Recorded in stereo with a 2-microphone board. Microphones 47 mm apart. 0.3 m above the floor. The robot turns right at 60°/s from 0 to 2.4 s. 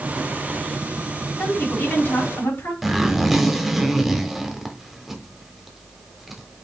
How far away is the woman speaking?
About 3.5 m.